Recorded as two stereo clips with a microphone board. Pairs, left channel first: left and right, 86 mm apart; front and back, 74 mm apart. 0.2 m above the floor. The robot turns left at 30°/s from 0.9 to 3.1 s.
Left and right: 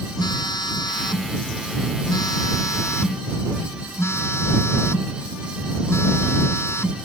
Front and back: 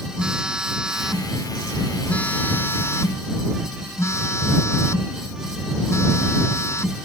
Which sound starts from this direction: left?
A phone buzzing, at 0.2 s.